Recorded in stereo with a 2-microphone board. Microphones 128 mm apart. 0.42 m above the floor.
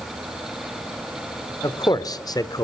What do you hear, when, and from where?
1.6 s a man speaking: 30° left (ahead or behind), 1.1 m